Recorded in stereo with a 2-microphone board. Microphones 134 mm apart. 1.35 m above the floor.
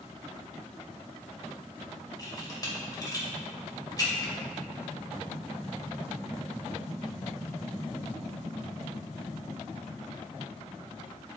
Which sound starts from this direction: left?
A camera shutter, at 2.2 s.